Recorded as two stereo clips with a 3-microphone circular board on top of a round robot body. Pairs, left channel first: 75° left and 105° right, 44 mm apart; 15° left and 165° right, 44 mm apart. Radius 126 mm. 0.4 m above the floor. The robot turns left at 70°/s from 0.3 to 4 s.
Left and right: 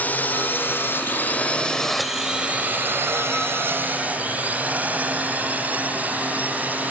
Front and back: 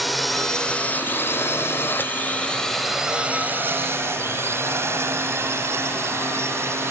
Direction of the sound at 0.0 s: 105° left.